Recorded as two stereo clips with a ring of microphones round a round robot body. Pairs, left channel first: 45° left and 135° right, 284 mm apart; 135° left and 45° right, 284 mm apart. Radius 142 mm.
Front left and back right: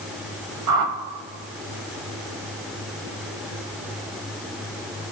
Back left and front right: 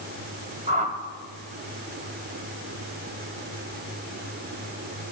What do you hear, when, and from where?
0.7 s a whoosh: 110° right, 0.8 m